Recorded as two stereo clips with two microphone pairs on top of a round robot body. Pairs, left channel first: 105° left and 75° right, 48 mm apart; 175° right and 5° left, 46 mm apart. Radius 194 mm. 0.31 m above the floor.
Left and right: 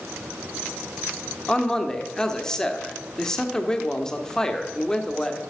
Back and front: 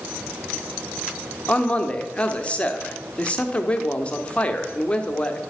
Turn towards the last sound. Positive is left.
turn(degrees=-175)